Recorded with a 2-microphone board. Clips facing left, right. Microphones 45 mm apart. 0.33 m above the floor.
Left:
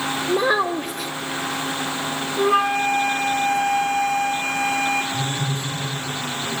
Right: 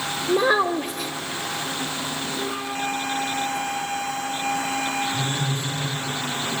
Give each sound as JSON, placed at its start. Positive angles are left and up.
{"t": 0.3, "sound": "a child speaking", "side_deg": 0, "distance_m": 0.5}
{"t": 2.4, "sound": "a flute", "side_deg": 75, "distance_m": 1.1}
{"t": 5.1, "sound": "a phone buzzing", "side_deg": -25, "distance_m": 7.5}